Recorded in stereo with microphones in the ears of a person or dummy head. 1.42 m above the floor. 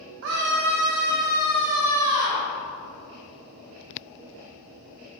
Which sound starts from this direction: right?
A scream, at 0.2 s.